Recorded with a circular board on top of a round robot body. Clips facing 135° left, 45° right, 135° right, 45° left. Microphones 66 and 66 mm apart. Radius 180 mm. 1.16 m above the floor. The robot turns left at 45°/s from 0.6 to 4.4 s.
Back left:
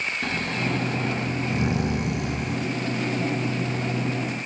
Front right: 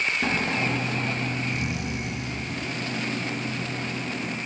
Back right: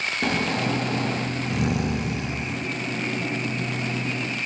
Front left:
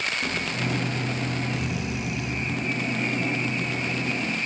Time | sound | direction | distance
0.2 | snoring | 120° right | 0.9 m